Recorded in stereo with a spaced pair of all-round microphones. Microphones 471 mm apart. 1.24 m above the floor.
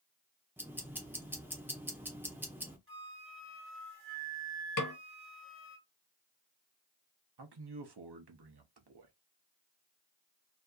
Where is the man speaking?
55° right (ahead or behind), 0.6 m.